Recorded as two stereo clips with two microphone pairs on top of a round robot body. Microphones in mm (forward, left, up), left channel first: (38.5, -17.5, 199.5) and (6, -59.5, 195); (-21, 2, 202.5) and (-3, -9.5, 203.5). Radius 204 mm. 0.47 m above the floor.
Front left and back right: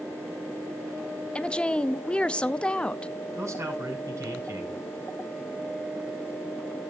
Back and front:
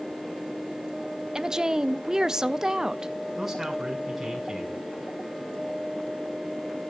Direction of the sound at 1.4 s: 5° right.